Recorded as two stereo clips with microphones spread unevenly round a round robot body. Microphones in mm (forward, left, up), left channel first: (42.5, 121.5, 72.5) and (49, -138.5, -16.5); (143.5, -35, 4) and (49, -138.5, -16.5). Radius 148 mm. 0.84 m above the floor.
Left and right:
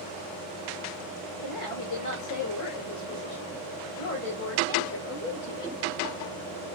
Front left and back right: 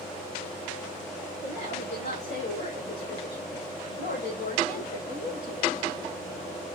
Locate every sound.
1.4 s a woman speaking: 75° left, 4 m; by 5.8 s 50° left, 5.5 m